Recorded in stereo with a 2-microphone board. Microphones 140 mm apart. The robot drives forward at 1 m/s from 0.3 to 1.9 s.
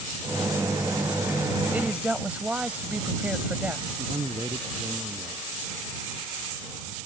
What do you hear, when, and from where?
1.7 s a woman speaking: 10° right (ahead or behind)
4.0 s a man speaking: 30° right (ahead or behind)